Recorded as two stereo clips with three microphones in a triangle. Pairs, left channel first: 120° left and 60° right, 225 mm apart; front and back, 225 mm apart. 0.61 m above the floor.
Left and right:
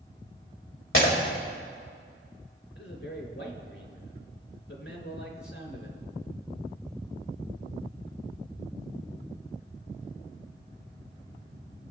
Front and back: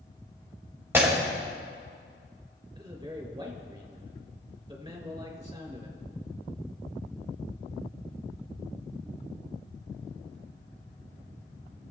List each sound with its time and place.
0.9 s breaking glass: 100° left, 1.8 m
2.8 s a man speaking: 110° left, 2.5 m